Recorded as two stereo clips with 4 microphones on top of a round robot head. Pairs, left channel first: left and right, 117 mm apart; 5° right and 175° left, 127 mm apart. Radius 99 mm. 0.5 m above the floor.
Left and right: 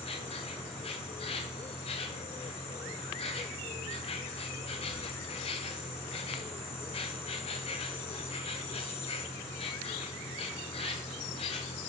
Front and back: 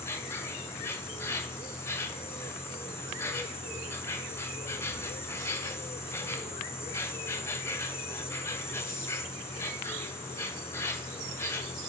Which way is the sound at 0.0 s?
60° left.